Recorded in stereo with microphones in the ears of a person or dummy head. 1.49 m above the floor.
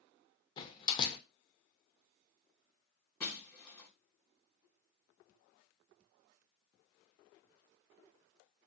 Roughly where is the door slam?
Left.